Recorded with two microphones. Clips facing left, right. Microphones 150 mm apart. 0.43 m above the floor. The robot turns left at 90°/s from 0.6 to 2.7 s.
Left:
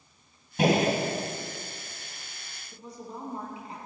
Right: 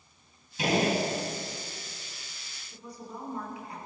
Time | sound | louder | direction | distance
0.6 | a gunshot | left 3 dB | 65° left | 3 m
2.7 | a woman speaking | left 1 dB | 25° left (ahead or behind) | 4.5 m